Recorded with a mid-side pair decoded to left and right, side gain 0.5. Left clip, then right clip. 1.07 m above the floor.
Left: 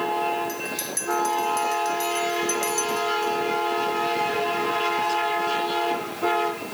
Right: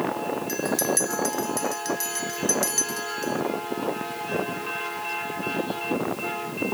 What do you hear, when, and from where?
0.5 s a bell: 30° right, 2 m